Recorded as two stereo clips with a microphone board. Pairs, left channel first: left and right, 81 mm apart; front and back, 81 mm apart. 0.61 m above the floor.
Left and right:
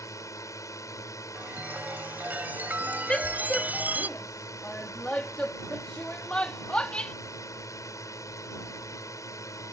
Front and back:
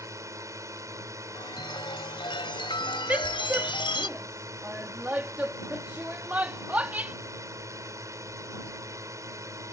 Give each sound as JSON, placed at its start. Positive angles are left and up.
{"t": 0.0, "sound": "a drone", "azimuth_deg": 135}
{"t": 1.4, "sound": "a chime", "azimuth_deg": -20}
{"t": 3.1, "sound": "a woman speaking", "azimuth_deg": 140}